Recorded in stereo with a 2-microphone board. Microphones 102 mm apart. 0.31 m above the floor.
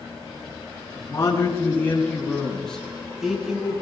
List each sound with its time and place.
1.0 s a man speaking: 40° left (ahead or behind), 4.5 m; by 3.7 s 10° right (ahead or behind), 5.5 m